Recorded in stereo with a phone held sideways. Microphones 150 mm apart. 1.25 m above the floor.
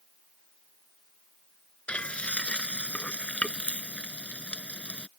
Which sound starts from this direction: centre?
Frying, at 1.9 s.